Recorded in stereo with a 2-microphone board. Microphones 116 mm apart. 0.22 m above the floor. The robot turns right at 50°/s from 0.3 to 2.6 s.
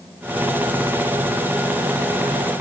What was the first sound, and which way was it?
Only background noise.